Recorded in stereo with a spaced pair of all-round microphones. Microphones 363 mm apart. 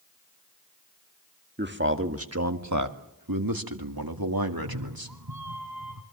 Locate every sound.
1.6 s a man speaking: 30° right (ahead or behind), 1.9 m; by 5.2 s 75° right (ahead or behind), 2.5 m
4.5 s a cat meowing: 75° right (ahead or behind), 3 m